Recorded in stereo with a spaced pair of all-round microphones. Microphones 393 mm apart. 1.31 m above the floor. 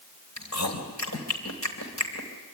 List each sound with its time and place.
0.4 s chewing: 45° left (ahead or behind), 3.5 m